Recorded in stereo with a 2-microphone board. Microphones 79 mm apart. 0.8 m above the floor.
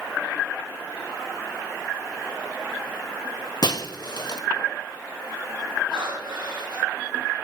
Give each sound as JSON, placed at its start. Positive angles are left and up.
{"t": 3.6, "sound": "breaking glass", "side_deg": 65, "distance_m": 1.1}
{"t": 5.9, "sound": "breathing", "side_deg": -80, "distance_m": 7.0}